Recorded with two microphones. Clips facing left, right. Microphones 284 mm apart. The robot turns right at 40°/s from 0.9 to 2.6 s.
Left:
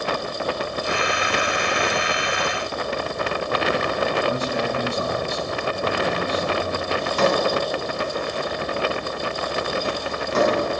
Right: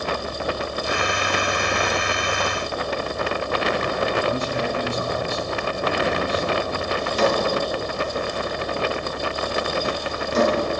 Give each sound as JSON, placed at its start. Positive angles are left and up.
{"t": 4.3, "sound": "a man speaking", "side_deg": 50, "distance_m": 5.0}
{"t": 7.0, "sound": "a drawer", "side_deg": 65, "distance_m": 4.5}